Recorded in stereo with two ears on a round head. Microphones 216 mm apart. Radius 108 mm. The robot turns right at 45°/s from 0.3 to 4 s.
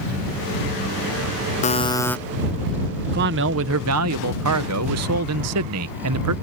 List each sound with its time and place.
1.6 s a buzzer: 30° left (ahead or behind); by 2.2 s 5° left (ahead or behind)
3.1 s a man speaking: 135° right; by 6.3 s 95° right